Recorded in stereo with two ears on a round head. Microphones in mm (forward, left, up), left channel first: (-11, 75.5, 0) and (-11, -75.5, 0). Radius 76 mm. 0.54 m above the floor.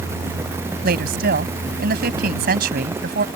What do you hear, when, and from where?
0.8 s a woman speaking: 65° right (ahead or behind)